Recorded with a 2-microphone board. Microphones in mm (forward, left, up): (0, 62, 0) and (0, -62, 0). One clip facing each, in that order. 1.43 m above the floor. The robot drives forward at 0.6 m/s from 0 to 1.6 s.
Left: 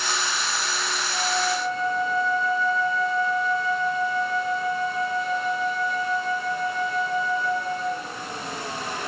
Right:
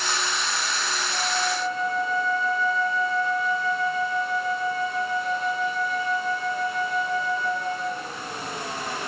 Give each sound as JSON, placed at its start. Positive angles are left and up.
{"t": 1.1, "sound": "a flute", "side_deg": -5, "distance_m": 5.0}